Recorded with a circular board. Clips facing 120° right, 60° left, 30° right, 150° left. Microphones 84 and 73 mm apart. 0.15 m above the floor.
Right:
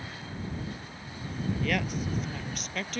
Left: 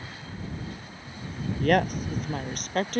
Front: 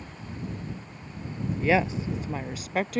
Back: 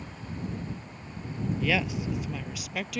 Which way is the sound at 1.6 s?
25° left.